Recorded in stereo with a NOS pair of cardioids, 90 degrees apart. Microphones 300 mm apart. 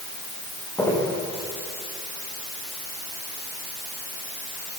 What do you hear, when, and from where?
0.8 s footsteps: 10° left, 8.5 m